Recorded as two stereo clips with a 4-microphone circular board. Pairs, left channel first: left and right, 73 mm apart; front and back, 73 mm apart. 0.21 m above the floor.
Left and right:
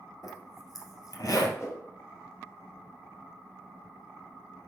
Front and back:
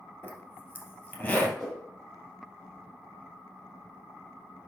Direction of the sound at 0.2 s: 65° left.